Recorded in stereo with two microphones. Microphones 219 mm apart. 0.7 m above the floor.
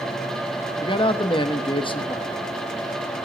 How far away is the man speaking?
About 0.9 m.